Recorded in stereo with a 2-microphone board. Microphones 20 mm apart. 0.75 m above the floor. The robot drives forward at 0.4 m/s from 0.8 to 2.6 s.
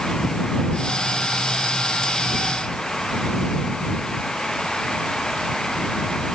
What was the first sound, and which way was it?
Only background noise.